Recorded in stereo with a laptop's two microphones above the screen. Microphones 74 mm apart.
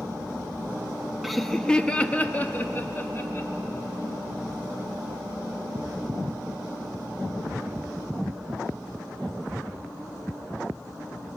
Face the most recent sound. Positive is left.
turn(degrees=35)  # may be behind; listen again after turning